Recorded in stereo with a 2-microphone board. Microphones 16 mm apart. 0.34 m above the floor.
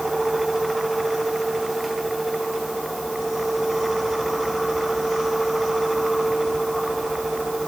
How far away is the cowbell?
I don't hear a cowbell.